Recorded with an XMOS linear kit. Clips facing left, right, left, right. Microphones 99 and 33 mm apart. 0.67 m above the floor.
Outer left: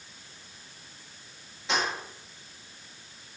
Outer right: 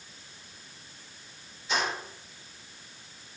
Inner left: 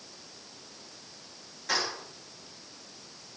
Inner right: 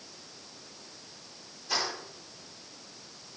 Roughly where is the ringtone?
No ringtone in this recording.